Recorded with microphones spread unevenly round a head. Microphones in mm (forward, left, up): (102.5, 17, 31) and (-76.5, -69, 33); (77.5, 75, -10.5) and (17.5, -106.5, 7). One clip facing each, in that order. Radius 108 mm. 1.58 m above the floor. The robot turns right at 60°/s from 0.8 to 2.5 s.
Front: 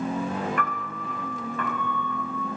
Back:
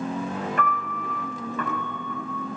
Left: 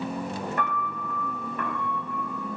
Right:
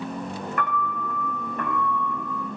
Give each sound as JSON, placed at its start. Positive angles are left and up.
{"t": 0.6, "sound": "a piano", "azimuth_deg": 145, "distance_m": 6.0}